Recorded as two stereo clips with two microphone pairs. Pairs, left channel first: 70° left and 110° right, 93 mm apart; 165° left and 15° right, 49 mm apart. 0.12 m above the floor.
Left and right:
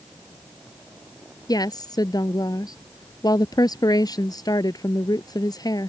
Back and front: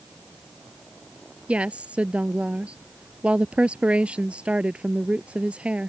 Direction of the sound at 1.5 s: 40° left.